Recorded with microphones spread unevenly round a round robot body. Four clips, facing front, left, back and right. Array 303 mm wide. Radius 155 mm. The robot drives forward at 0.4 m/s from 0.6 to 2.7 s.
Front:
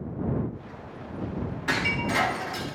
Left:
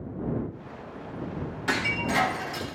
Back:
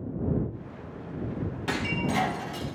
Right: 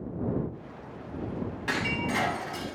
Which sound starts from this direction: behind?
Breaking glass, at 1.7 s.